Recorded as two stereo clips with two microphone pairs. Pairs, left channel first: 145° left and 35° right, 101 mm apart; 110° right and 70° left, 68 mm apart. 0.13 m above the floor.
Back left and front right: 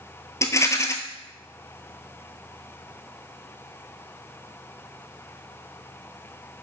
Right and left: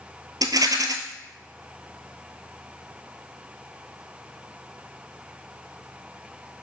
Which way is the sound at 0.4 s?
85° left.